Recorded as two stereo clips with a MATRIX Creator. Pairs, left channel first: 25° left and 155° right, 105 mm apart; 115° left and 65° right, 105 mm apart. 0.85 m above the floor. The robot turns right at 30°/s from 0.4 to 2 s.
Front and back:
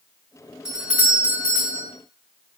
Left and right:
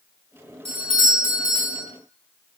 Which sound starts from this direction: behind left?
A doorbell, at 0.7 s.